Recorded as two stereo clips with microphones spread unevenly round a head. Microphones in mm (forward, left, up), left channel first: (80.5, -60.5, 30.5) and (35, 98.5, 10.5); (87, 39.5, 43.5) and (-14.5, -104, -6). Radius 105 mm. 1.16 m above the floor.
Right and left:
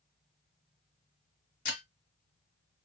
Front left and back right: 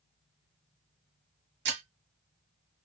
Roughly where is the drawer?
I don't hear a drawer.